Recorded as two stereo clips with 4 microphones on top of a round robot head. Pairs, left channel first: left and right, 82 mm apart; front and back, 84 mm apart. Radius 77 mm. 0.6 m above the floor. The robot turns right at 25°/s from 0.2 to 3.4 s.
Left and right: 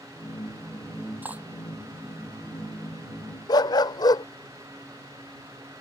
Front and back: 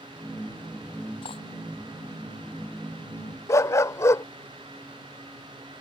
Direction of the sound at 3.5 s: 55° left.